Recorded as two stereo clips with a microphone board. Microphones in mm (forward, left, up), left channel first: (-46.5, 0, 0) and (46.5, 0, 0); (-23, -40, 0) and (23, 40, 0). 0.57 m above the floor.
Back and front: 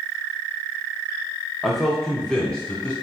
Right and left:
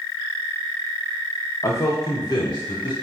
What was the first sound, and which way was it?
A man speaking, 90° right.